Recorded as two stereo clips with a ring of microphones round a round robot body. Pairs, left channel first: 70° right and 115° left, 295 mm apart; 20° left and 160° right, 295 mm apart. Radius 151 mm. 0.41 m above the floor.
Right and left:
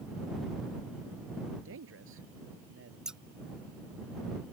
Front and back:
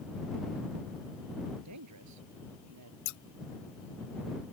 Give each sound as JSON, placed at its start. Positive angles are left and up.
{"t": 1.6, "sound": "a man speaking", "azimuth_deg": 165}
{"t": 3.0, "sound": "scissors", "azimuth_deg": 25}